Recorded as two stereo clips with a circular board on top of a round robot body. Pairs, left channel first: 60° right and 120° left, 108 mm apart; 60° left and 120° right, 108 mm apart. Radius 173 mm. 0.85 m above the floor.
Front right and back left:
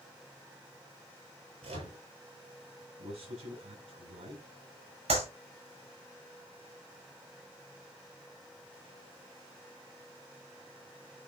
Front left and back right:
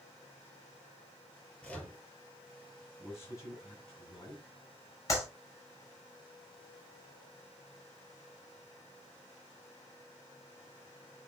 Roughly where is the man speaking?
Behind left.